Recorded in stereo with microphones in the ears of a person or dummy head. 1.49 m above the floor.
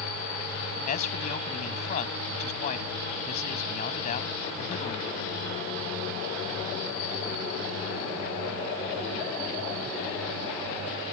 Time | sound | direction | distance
0.9 | a man speaking | 40° left (ahead or behind) | ?